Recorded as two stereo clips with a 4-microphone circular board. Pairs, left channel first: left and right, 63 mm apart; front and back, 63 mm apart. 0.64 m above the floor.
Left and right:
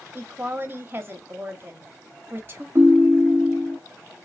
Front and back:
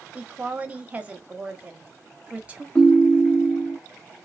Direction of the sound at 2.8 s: 65° right.